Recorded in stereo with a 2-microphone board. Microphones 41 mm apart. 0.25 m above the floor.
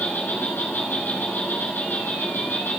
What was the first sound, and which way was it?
An insect, 85° left.